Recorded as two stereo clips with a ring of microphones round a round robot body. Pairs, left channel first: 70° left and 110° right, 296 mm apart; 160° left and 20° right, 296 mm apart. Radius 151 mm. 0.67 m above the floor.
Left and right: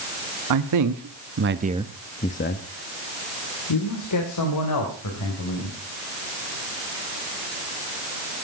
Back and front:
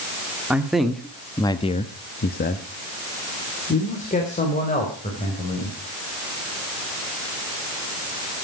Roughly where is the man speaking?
Right.